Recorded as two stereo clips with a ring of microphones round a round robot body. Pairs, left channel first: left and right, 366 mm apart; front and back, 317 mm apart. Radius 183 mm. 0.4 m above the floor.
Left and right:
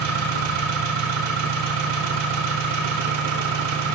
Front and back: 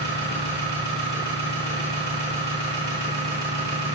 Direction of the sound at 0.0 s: 105° right.